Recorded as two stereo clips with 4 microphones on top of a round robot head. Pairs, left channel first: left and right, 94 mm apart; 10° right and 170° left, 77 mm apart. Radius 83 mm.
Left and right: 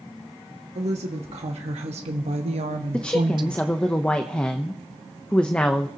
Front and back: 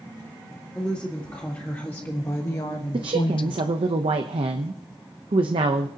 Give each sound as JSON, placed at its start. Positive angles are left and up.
{"t": 0.8, "sound": "a woman speaking", "azimuth_deg": -90, "distance_m": 2.0}
{"t": 2.9, "sound": "a woman speaking", "azimuth_deg": 165, "distance_m": 0.7}